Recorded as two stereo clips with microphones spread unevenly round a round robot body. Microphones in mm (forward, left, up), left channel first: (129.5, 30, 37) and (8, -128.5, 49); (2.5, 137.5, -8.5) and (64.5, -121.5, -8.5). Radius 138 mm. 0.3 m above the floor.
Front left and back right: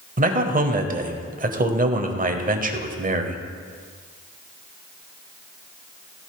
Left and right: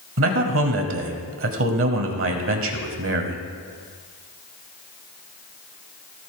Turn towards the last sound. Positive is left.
turn(degrees=-95)